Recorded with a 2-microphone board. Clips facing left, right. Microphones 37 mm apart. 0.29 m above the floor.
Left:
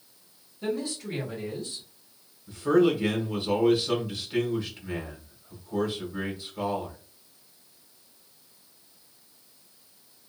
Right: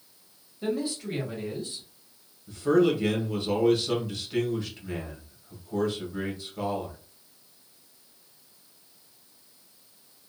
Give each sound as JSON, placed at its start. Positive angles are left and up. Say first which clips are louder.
{"t": 0.6, "sound": "a man speaking", "louder": "right 1 dB", "side_deg": -10, "distance_m": 1.3}
{"t": 2.5, "sound": "a man speaking", "louder": "even", "side_deg": 5, "distance_m": 1.0}